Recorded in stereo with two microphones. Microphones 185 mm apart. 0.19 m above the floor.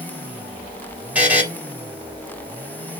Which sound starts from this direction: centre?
A buzzer, at 1.1 s.